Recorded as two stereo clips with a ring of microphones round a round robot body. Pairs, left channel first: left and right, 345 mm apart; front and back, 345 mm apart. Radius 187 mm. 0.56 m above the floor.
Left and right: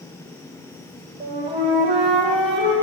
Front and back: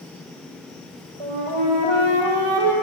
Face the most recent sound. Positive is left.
turn(degrees=-165)